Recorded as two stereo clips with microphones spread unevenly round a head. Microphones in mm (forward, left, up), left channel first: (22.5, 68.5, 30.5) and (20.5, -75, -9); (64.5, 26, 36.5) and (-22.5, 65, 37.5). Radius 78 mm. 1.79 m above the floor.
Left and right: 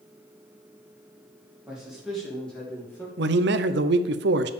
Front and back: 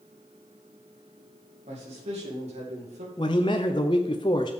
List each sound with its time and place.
1.7 s a man speaking: 175° right, 3 m; by 3.1 s 165° left, 2.5 m
3.2 s a man speaking: 85° right, 0.8 m